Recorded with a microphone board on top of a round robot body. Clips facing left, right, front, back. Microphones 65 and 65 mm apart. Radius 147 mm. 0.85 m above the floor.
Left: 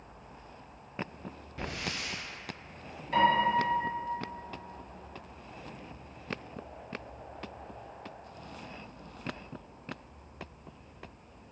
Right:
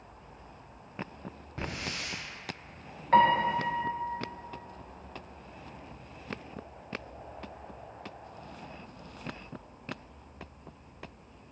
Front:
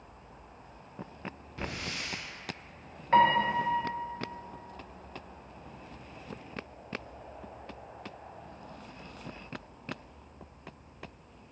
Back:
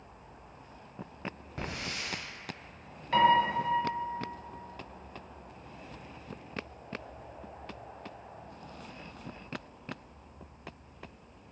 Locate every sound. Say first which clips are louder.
1.6 s a hiss: even, front 1 dB; 135° right, 1.1 m
3.1 s a piano: right 2 dB, front 1 dB; 60° right, 0.7 m